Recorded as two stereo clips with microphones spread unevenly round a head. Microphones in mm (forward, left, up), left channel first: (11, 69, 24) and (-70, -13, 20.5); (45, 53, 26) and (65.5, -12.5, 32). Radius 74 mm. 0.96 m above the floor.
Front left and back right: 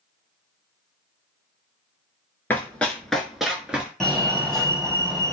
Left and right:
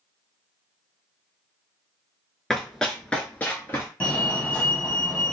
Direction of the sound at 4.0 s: 130° left.